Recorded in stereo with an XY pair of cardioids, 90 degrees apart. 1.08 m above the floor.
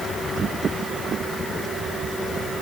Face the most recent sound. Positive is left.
No sound to turn to.